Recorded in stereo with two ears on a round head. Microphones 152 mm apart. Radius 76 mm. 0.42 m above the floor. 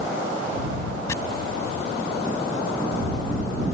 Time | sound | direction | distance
1.1 | chopping | 15° left (ahead or behind) | ?